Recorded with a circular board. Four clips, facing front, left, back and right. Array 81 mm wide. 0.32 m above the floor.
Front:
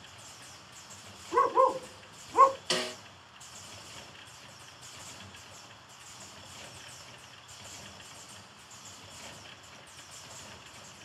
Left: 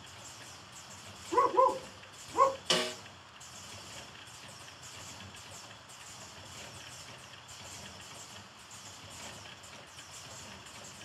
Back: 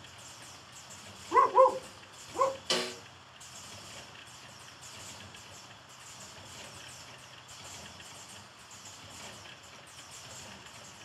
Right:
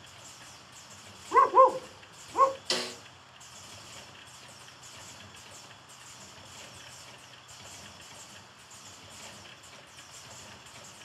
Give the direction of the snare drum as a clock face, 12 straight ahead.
9 o'clock.